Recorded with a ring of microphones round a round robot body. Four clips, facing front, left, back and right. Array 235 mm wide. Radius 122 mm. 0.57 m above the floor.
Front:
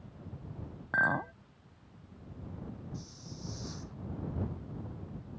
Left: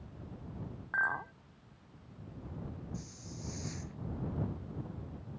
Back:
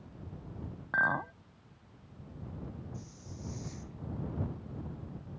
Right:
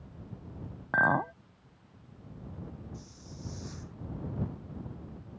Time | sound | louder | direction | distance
0.9 | a clink | right 8 dB, even | 80° right | ?
2.9 | a hiss | left 1 dB, front 1 dB | 25° left | ?